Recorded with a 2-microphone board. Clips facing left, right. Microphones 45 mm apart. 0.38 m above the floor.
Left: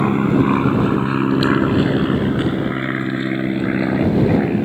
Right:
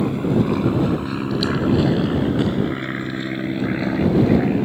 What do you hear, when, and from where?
0.0 s an aircraft: 40° left (ahead or behind); by 4.7 s 10° left (ahead or behind)